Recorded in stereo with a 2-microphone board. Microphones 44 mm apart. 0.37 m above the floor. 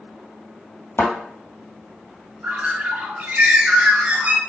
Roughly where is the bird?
Right.